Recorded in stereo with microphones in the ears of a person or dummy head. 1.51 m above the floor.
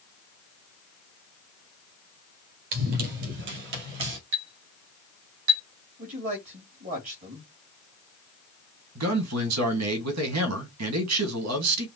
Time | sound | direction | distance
2.7 | running footsteps | 40° right (ahead or behind) | 1.9 m
4.3 | a clink | 65° right (ahead or behind) | 2 m
6.0 | a man speaking | 40° right (ahead or behind) | 2 m
8.9 | a man speaking | 85° right | 1.8 m